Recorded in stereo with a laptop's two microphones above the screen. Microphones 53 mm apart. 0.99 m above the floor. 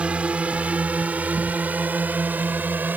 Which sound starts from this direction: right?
A drone, at 0.0 s.